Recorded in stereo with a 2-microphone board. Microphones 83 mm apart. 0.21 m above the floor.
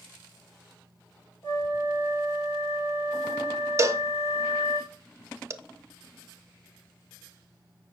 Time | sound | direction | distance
1.4 | a flute | 30° left (ahead or behind) | 3 m
3.8 | a cowbell | 35° right (ahead or behind) | 0.5 m